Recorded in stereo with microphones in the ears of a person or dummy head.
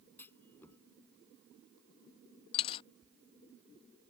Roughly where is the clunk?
Centre.